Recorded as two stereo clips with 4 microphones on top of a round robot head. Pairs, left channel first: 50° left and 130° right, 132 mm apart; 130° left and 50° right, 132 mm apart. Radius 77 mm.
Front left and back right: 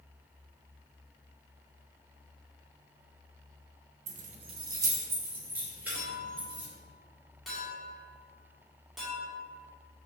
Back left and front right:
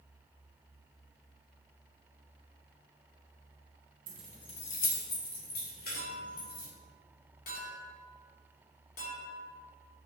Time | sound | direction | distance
4.1 | keys jangling | 105° right | 0.5 m
5.9 | a clink | 140° left | 2 m